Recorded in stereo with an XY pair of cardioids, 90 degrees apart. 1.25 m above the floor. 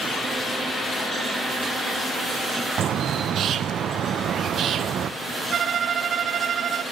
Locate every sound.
2.8 s a bird: 65° right, 0.6 m
5.5 s a violin: 60° right, 0.6 m